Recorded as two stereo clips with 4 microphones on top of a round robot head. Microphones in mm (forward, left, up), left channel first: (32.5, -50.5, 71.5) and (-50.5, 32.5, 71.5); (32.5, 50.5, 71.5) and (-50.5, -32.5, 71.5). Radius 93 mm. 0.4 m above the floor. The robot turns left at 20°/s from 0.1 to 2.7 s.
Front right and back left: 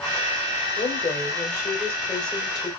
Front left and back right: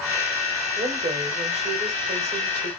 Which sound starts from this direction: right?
A woman speaking, at 0.8 s.